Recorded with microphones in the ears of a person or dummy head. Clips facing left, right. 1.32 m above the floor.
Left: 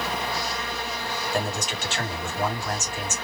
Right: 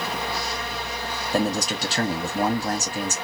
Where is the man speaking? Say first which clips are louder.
Right 7 dB; 35° right (ahead or behind), 1.2 m.